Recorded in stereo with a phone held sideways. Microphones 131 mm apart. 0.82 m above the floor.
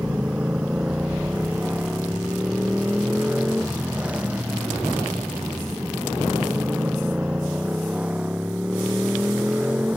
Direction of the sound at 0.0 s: 10° right (ahead or behind).